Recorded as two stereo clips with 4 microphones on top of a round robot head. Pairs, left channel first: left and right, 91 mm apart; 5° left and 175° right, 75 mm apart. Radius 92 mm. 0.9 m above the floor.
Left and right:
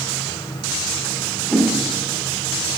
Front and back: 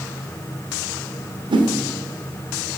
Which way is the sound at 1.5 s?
175° left.